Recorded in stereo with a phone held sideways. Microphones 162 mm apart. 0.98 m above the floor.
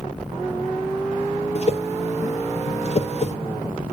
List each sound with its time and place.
1.6 s a whoosh: 45° left (ahead or behind), 1.1 m